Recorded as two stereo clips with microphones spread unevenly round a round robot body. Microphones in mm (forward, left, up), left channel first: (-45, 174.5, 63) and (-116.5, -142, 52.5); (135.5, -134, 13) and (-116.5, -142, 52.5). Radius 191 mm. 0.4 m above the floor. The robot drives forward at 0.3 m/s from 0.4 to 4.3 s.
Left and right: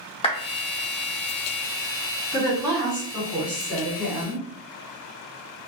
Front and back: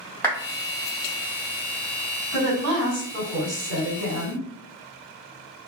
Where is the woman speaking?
Straight behind, 1.7 m.